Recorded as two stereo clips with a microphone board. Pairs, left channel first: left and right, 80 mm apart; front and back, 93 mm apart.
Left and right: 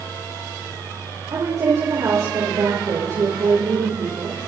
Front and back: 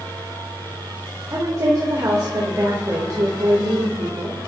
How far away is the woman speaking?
About 3 m.